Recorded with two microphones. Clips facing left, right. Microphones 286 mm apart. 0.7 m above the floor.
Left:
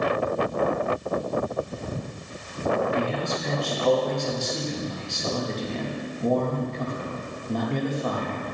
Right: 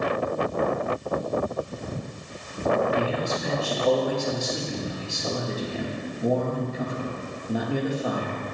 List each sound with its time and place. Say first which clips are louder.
3.0 s a man speaking: right 1 dB; 10° right (ahead or behind), 1.6 m